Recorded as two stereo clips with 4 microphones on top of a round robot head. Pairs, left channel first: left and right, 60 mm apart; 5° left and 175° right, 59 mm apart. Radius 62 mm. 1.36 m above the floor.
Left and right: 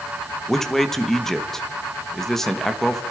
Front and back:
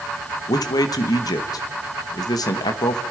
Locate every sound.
0.5 s a man speaking: 5° left, 1.8 m